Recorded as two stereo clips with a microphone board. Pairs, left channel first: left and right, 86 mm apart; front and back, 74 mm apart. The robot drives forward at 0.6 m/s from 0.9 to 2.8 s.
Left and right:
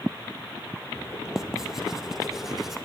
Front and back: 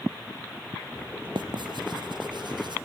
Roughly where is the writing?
Behind.